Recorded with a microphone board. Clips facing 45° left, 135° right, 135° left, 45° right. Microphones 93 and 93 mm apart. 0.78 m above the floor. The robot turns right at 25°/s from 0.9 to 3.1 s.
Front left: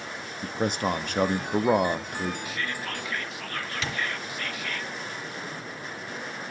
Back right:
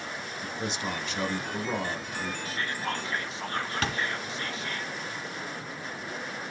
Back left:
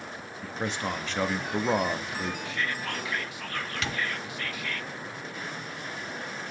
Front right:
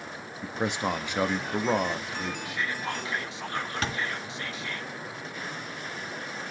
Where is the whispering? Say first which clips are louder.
Back right 1 dB, even; 110° right, 0.9 m; by 4.8 s 95° right, 0.9 m.